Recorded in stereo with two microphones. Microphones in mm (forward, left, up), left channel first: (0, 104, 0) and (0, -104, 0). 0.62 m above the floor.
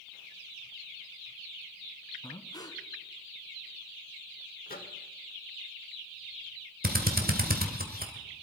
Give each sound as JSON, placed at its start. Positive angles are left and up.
{"t": 2.2, "sound": "breathing", "side_deg": 20, "distance_m": 1.2}
{"t": 4.7, "sound": "a microwave", "side_deg": 45, "distance_m": 1.2}
{"t": 6.8, "sound": "a drill", "side_deg": -45, "distance_m": 1.7}